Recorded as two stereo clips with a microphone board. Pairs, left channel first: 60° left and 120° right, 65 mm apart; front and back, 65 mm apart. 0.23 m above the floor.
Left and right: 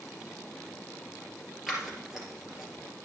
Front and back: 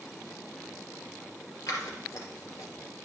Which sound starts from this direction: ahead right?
Scissors, at 1.7 s.